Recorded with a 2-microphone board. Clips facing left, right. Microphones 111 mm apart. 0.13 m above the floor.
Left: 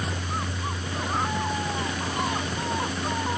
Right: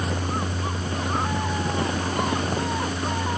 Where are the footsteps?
No footsteps in this recording.